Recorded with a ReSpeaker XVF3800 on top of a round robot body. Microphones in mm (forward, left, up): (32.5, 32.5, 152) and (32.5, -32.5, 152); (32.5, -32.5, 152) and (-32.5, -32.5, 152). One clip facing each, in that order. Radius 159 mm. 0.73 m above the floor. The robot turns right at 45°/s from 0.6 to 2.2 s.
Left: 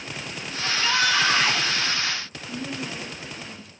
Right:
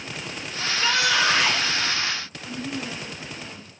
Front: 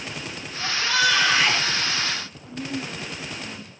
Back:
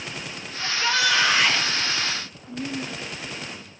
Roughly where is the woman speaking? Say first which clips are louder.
Right 1 dB, even; right.